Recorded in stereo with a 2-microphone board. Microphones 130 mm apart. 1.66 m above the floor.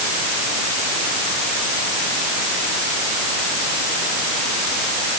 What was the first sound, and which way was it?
Only background noise.